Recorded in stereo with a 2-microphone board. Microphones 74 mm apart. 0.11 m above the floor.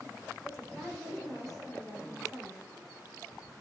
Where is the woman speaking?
5° left (ahead or behind), 6.5 m.